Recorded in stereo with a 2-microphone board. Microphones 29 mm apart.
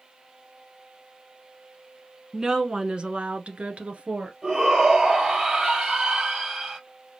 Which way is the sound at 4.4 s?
25° right (ahead or behind).